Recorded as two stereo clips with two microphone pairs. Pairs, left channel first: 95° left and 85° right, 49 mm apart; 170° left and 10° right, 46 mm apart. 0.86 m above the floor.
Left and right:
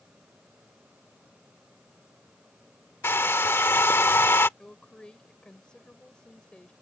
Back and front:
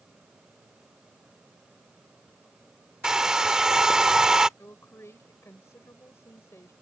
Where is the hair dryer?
65° left.